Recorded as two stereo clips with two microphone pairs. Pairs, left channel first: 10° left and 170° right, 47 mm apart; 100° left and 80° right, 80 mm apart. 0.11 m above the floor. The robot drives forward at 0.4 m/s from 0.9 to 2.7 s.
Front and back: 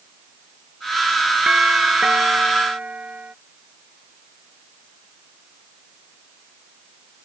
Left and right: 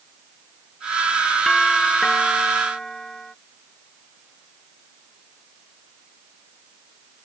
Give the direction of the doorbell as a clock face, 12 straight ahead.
6 o'clock.